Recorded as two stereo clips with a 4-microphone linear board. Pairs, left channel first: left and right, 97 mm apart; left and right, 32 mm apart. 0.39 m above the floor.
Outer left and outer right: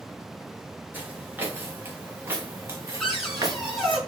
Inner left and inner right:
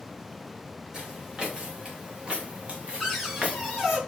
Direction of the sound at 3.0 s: Centre (ahead or behind).